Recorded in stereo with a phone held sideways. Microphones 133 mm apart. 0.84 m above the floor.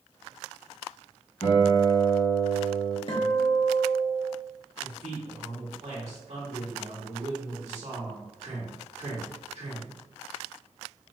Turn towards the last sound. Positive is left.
turn(degrees=-70)  # may be behind; listen again after turning